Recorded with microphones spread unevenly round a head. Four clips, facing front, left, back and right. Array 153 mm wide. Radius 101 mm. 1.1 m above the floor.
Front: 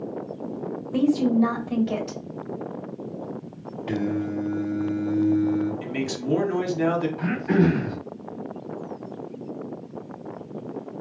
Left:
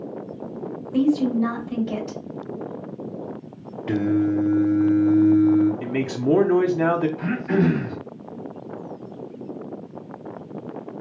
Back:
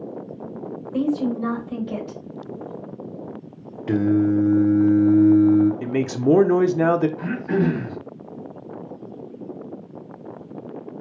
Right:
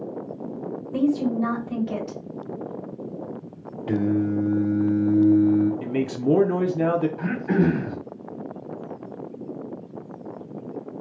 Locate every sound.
0.9 s a woman speaking: 5° right, 3 m
3.9 s singing: 160° left, 0.8 m
5.8 s a man speaking: 160° left, 0.7 m
7.2 s throat clearing: 45° right, 1.6 m